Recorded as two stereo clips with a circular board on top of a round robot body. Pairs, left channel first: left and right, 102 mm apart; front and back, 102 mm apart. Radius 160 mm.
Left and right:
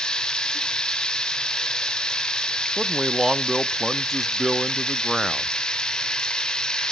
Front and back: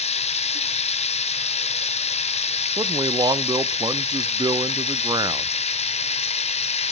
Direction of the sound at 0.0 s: 5° left.